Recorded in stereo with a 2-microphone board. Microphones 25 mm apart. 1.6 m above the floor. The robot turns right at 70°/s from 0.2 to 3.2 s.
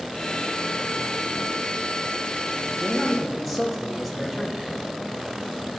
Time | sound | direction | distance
2.8 | a man speaking | 25° left (ahead or behind) | 3 m